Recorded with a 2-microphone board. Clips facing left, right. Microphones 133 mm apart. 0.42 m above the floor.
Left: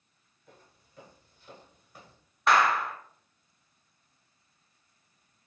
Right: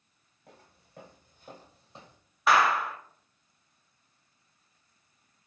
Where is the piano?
I don't hear a piano.